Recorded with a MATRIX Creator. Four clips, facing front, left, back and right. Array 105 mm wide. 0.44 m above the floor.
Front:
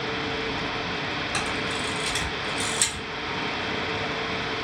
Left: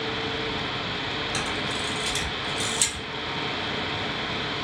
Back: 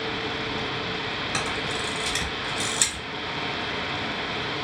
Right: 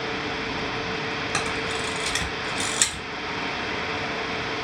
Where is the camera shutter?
105° right, 1.1 m.